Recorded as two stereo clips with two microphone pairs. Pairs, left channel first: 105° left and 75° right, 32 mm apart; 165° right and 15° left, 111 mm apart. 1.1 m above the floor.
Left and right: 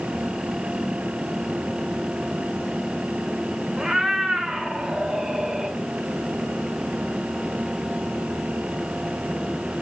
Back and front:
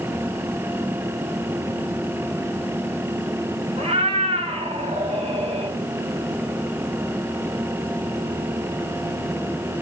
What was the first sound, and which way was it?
A cat meowing, 5° right.